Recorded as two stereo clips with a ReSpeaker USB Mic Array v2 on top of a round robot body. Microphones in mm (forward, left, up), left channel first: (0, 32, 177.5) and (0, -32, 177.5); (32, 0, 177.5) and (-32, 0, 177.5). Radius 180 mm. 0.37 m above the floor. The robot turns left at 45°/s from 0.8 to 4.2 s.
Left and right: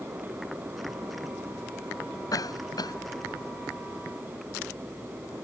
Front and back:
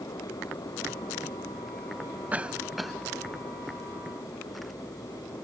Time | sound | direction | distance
2.3 | a cough | 115° left | ?